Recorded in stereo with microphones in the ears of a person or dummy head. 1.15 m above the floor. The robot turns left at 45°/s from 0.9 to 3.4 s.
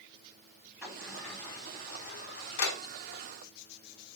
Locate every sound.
0.8 s a sliding door: 10° right (ahead or behind), 3 m; by 2.8 s 75° left (ahead or behind), 3 m